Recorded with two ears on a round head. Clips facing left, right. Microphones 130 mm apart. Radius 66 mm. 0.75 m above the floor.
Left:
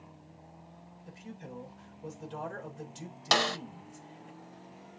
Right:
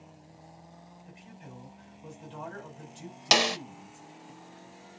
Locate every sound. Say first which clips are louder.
1.1 s a man speaking: left 6 dB; 50° left (ahead or behind), 3.5 m
3.3 s a snare drum: right 2 dB; 20° right (ahead or behind), 0.5 m